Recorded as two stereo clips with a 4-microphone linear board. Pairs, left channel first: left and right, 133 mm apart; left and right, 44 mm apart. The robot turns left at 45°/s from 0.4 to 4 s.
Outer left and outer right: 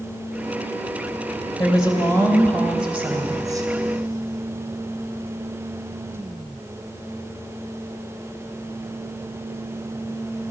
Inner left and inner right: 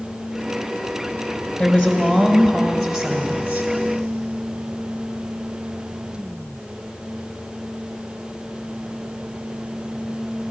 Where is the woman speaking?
50° left, 2 m; by 3.7 s 45° right, 2 m.